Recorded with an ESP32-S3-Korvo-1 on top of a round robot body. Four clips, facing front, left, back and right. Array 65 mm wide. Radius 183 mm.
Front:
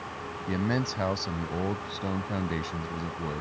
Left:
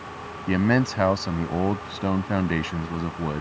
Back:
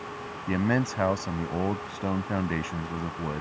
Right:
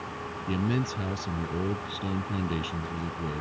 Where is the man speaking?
105° left.